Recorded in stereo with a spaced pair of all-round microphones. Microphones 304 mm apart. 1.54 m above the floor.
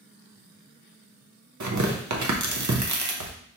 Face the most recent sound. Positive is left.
turn(degrees=-65)  # may be behind; listen again after turning